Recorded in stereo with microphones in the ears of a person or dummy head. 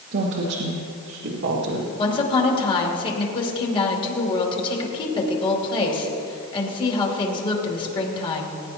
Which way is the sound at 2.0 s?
30° left (ahead or behind).